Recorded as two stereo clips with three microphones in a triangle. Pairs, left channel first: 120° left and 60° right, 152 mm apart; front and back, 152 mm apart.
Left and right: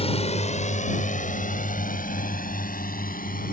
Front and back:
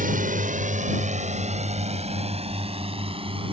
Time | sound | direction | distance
0.0 | a drone | 165° left | ?